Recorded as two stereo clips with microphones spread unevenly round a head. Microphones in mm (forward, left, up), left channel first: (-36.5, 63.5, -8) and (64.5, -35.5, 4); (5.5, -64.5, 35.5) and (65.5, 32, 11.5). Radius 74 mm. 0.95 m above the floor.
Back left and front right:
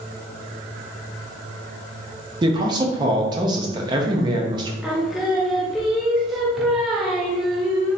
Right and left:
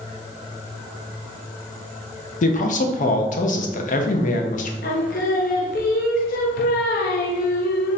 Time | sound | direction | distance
2.4 | a man speaking | 110° right | 0.7 m
4.8 | singing | 135° right | 0.6 m